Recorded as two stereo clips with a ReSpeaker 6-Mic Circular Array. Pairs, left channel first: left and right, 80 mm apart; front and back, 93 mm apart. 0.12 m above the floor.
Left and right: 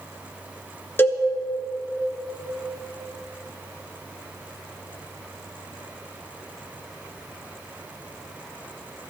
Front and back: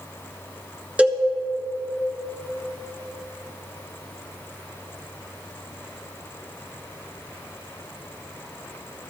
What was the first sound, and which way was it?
A cowbell, 120° left.